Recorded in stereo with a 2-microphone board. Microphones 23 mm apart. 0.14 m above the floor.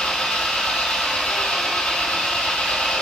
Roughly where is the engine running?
Left.